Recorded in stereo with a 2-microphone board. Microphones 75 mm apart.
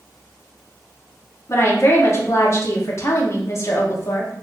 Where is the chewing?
No chewing in this recording.